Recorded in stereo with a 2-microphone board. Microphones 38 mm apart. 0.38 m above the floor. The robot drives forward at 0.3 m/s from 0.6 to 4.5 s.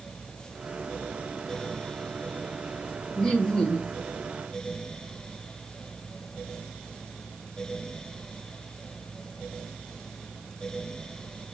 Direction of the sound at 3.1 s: 20° left (ahead or behind).